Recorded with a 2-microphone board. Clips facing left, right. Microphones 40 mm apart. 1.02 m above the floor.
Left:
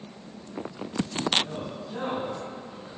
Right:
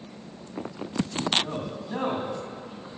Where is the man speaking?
65° right (ahead or behind), 2 m.